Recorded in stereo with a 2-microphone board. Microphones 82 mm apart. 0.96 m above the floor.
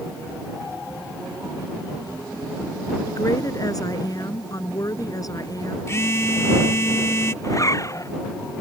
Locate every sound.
3.1 s a woman speaking: 45° left (ahead or behind)
5.9 s a phone buzzing: 35° left (ahead or behind)
7.4 s a zipper: 40° left (ahead or behind)